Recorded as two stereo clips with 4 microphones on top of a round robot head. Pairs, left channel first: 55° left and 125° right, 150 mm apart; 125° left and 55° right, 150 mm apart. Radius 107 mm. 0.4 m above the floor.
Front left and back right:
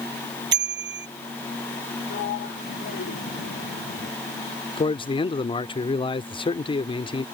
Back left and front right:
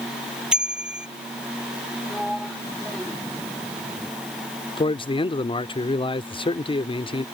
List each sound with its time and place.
0.5 s a bicycle bell: 135° right
2.1 s a sliding door: 35° left
4.8 s a man speaking: 90° left